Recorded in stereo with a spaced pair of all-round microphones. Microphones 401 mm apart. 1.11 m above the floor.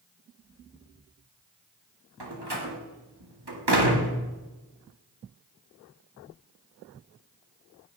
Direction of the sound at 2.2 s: 75° right (ahead or behind).